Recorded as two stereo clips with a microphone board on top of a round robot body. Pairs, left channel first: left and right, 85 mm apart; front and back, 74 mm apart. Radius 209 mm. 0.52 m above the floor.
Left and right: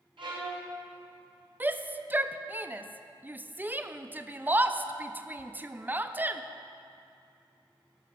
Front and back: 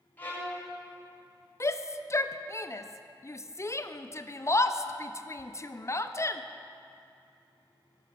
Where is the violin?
65° right, 2.5 m.